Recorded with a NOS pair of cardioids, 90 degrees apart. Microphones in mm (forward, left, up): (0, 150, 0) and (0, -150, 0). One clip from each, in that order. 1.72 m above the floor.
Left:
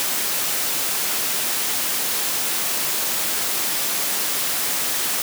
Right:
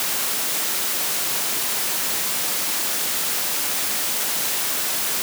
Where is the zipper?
I don't hear a zipper.